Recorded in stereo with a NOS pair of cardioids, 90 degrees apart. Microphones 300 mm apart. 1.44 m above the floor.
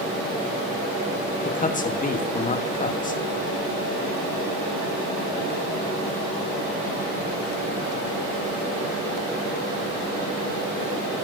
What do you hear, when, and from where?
1.4 s a man speaking: 25° left, 1.0 m